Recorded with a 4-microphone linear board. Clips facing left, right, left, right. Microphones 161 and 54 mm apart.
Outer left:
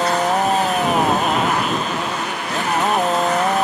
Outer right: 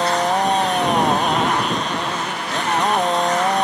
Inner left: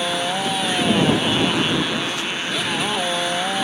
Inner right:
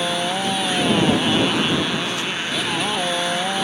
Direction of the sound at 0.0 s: 5° left (ahead or behind).